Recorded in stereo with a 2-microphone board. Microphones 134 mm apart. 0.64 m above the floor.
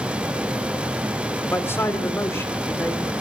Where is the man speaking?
20° left (ahead or behind), 2.5 m.